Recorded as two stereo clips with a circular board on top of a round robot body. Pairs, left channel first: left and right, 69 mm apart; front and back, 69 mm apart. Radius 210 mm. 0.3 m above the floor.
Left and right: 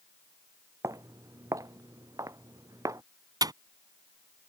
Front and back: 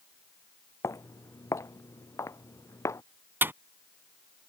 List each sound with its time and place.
0.8 s footsteps: 50° right
3.4 s a dropped coin: 120° right